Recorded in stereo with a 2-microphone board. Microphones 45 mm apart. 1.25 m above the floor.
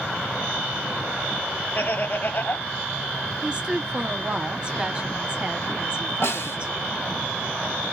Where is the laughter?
40° left (ahead or behind), 0.6 m.